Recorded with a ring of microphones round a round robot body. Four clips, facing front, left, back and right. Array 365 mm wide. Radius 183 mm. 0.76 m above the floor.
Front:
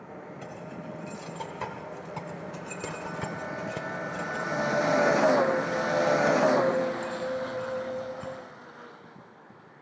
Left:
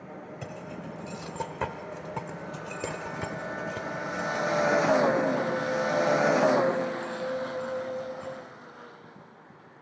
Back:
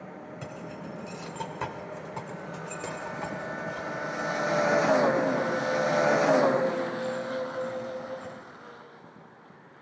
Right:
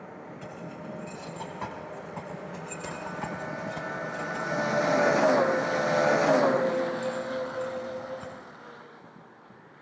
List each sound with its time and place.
0.4 s keys jangling: 120° left, 3 m; by 8.3 s 10° right, 6.5 m